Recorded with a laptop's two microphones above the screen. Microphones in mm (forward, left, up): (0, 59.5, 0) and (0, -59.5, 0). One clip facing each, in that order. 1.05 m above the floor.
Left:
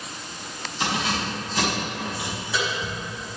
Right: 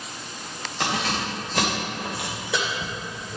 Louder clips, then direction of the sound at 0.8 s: Even; 55° right (ahead or behind).